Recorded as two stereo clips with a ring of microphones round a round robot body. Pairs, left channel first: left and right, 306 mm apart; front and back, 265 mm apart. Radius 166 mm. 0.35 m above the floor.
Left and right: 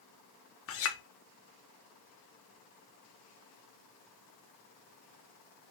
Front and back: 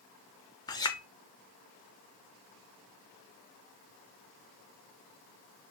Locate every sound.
0.7 s a clink: 70° left, 0.7 m